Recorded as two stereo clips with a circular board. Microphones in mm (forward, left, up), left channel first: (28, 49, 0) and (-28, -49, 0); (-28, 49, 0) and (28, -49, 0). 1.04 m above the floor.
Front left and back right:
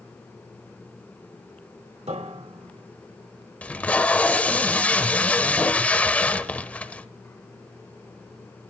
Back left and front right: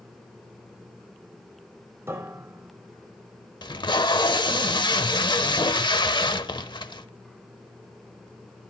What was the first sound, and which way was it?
A piano, 125° right.